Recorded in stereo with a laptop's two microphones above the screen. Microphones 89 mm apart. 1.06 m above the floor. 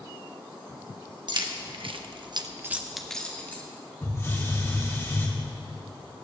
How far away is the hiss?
About 1.6 m.